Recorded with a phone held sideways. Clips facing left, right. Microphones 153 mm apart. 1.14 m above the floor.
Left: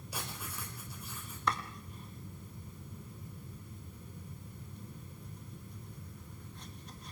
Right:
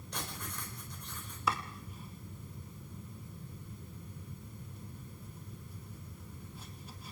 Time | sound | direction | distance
0.1 | writing | 5° left (ahead or behind) | 5.5 m
1.5 | chopping | 5° right (ahead or behind) | 2.0 m